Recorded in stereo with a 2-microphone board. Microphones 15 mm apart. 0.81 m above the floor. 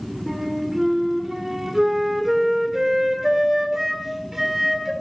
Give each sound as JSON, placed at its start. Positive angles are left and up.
{"t": 0.3, "sound": "a flute", "side_deg": -30, "distance_m": 2.5}